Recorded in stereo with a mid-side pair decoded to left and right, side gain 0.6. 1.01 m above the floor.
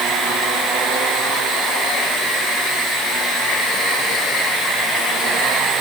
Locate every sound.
Only background noise.